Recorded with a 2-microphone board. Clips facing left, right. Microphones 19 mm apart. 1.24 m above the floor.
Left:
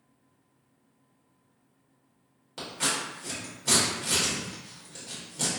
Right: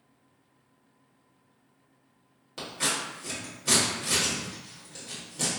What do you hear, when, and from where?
2.6 s scissors: centre (ahead or behind), 1.6 m